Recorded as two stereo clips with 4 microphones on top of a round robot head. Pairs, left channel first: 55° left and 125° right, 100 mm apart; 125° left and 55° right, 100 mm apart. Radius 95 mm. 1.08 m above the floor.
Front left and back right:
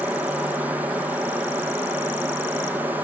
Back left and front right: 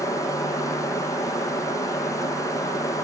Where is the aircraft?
165° left; by 3.0 s 170° left.